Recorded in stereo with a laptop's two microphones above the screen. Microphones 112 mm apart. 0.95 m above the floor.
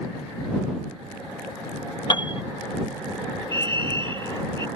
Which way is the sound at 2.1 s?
40° left (ahead or behind).